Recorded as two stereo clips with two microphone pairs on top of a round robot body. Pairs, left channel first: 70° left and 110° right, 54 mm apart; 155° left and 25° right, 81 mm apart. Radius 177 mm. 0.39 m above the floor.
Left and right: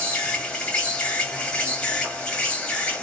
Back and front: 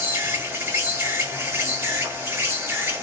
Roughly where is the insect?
Ahead.